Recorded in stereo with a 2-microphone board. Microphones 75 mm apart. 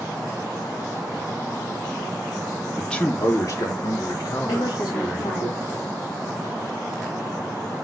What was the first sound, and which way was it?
A man speaking, centre (ahead or behind).